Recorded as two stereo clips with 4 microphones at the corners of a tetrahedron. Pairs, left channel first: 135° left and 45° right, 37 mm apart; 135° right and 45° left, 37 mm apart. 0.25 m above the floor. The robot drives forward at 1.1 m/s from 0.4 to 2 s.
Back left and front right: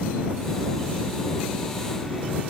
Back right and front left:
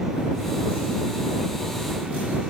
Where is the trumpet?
I don't hear a trumpet.